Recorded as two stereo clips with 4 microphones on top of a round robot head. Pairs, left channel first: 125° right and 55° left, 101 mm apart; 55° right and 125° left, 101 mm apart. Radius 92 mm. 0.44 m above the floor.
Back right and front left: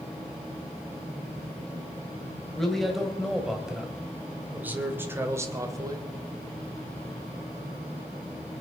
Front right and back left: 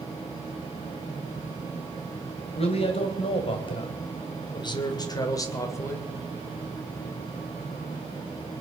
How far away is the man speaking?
About 3 m.